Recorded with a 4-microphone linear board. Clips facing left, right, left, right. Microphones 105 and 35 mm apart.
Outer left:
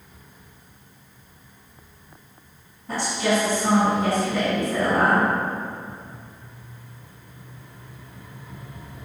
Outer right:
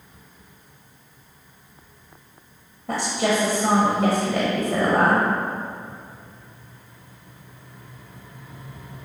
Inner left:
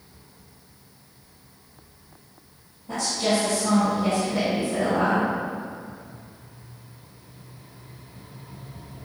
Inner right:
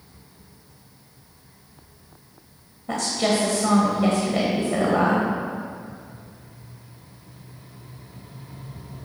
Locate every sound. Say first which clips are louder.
2.9 s a woman speaking: outer right 1 dB, inner right 1 dB; 60° right (ahead or behind), 1.7 m